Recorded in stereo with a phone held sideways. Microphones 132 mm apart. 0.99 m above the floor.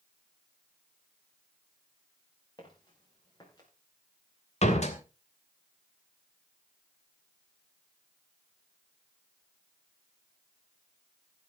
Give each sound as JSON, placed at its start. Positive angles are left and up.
{"t": 2.6, "sound": "footsteps", "side_deg": 35, "distance_m": 7.0}
{"t": 4.6, "sound": "a door slam", "side_deg": 55, "distance_m": 2.5}